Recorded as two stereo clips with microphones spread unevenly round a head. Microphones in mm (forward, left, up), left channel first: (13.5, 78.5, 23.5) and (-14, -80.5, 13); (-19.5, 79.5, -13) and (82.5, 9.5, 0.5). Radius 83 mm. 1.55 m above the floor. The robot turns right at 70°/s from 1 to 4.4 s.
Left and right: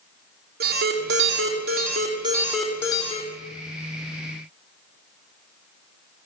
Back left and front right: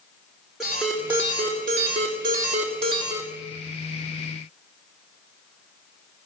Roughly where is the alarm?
Behind right.